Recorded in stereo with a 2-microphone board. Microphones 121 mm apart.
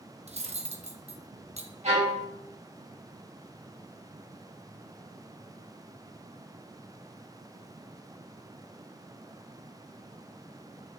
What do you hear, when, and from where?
0.3 s cutlery clinking: 65° right (ahead or behind), 0.6 m
1.8 s a violin: 80° right, 2.5 m